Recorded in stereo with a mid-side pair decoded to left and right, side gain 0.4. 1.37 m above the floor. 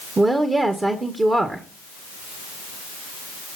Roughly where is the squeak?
No squeak in this recording.